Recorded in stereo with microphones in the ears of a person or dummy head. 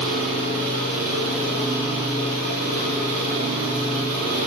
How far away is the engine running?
About 3 m.